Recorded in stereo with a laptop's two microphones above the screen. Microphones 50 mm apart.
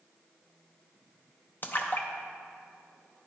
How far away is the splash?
About 0.7 m.